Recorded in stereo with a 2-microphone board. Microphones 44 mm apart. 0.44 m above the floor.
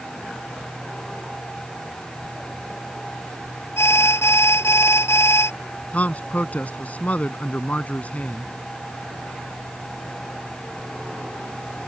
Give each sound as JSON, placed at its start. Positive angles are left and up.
{"t": 3.8, "sound": "an alarm", "side_deg": 75}
{"t": 5.9, "sound": "a man speaking", "side_deg": 35}